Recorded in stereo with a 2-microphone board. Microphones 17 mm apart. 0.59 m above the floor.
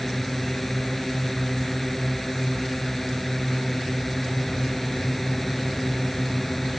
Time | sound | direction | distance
0.0 | a drone | 5° left (ahead or behind) | ?